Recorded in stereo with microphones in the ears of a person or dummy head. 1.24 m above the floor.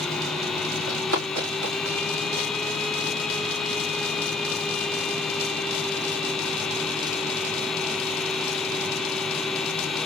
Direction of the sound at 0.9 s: 70° right (ahead or behind).